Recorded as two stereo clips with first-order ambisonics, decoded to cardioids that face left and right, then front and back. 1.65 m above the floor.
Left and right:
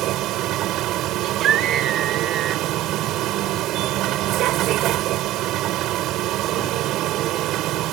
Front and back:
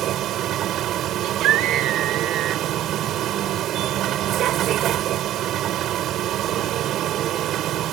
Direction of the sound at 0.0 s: 130° right.